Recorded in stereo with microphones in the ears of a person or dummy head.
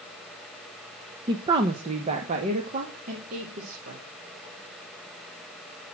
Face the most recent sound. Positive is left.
turn(degrees=-45)  # may be behind; listen again after turning